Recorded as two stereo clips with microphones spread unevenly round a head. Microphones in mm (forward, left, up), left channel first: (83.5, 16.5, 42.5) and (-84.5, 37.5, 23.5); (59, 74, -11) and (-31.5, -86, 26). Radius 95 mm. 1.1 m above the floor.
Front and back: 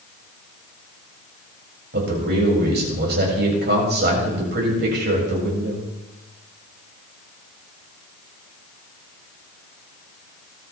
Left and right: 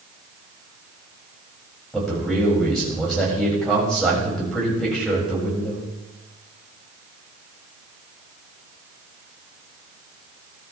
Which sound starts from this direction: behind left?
A man speaking, at 1.9 s.